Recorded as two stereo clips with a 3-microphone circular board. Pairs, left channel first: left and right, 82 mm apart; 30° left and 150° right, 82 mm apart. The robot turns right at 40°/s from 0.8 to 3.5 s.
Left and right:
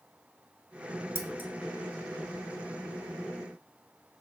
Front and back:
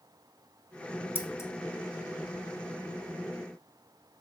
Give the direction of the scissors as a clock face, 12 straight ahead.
1 o'clock.